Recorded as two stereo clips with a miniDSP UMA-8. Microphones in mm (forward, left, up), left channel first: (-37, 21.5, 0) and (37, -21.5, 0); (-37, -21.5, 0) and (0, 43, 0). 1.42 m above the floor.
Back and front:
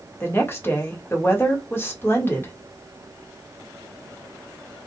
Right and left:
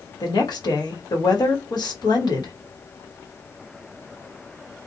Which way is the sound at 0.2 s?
145° right.